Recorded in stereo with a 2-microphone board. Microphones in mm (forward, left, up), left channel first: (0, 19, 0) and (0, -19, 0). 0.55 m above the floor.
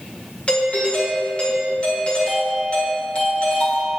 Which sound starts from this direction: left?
A doorbell, at 0.5 s.